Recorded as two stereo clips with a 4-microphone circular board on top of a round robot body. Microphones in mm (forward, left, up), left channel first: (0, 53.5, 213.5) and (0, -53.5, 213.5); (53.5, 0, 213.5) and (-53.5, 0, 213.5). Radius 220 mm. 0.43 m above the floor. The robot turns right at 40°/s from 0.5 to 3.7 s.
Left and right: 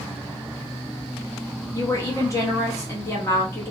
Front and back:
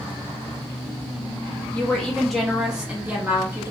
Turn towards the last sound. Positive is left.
turn(degrees=145)